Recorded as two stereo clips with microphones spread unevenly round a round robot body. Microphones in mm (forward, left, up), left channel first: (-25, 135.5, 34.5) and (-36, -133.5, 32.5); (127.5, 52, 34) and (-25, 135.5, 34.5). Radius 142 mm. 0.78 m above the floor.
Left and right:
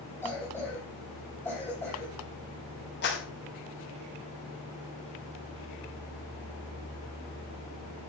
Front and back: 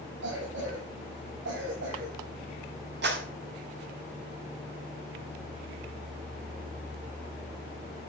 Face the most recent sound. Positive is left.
turn(degrees=140)